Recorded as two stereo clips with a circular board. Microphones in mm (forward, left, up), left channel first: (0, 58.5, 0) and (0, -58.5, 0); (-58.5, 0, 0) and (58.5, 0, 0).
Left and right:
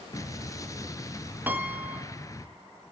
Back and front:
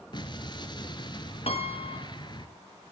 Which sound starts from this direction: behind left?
An explosion, at 0.1 s.